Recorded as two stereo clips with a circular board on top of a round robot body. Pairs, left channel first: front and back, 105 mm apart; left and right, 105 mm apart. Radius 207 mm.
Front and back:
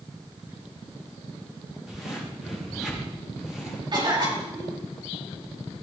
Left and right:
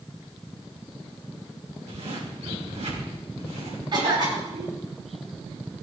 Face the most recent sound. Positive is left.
turn(degrees=-135)